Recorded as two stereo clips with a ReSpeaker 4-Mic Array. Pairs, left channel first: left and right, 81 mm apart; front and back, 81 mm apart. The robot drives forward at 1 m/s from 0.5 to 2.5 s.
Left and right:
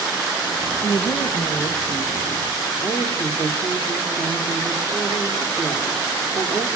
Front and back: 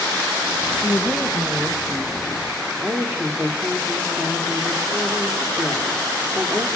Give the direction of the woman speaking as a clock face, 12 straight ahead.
10 o'clock.